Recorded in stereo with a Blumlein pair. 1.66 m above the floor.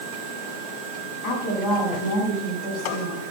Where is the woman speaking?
40° left, 9.5 m; by 3.2 s 35° left, 8.5 m.